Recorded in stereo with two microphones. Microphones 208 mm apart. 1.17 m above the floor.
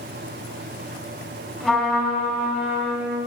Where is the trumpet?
Centre (ahead or behind), 3 m.